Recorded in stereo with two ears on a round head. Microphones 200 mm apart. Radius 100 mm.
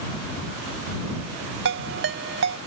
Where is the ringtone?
55° right (ahead or behind).